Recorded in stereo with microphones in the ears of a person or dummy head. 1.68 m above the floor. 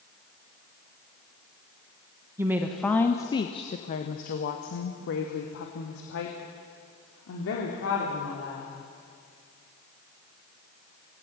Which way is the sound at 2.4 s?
10° right (ahead or behind).